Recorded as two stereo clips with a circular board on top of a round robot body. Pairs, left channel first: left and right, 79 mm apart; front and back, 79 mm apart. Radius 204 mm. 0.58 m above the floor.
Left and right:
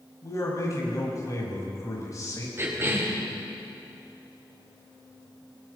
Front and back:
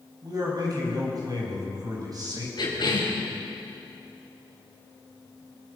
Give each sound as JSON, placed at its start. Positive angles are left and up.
{"t": 0.2, "sound": "a man speaking", "azimuth_deg": 140, "distance_m": 5.5}
{"t": 2.6, "sound": "a cough", "azimuth_deg": -30, "distance_m": 4.0}